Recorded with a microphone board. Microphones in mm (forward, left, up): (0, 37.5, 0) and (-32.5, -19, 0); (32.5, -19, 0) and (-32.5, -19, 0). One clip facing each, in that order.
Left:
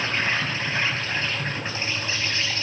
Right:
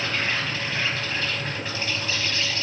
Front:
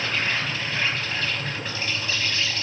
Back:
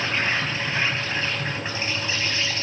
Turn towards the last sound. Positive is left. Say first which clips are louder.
# left 2 dB, back 2 dB
turn(degrees=115)